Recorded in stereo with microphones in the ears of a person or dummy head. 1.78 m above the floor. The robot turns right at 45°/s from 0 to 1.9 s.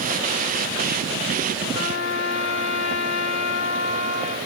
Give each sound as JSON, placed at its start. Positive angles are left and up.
{"t": 1.7, "sound": "a trumpet", "side_deg": 40, "distance_m": 2.0}